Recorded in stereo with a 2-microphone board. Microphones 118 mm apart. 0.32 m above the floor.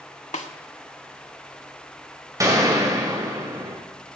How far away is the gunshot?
About 1.8 m.